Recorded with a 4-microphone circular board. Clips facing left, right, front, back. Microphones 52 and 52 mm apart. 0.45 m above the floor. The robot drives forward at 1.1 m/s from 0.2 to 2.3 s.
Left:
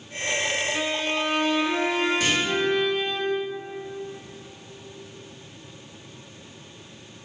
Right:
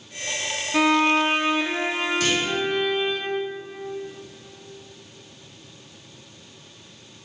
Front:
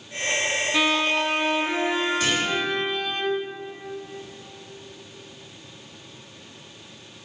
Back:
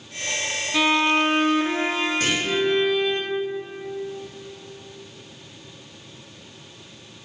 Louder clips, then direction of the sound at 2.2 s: Right 1 dB, even; 155° left.